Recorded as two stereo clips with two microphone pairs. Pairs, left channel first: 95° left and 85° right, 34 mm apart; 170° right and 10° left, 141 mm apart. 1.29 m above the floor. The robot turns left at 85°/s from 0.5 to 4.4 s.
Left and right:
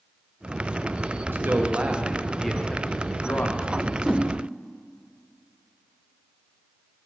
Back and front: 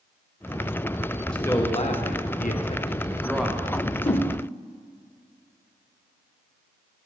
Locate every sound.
1.3 s a man speaking: 85° right, 0.9 m; by 3.7 s 75° left, 0.9 m
3.8 s a whoosh: 170° right, 0.6 m; by 4.3 s 145° left, 0.6 m